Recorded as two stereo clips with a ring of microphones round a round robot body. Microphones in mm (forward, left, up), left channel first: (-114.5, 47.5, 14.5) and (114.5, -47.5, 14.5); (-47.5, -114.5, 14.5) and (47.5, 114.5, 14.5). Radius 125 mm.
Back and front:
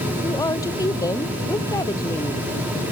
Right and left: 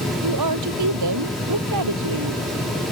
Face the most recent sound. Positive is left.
turn(degrees=80)